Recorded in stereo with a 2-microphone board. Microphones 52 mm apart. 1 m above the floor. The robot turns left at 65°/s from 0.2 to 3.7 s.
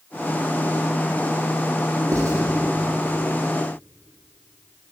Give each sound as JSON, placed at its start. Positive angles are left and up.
{"t": 2.1, "sound": "writing", "side_deg": -85, "distance_m": 8.5}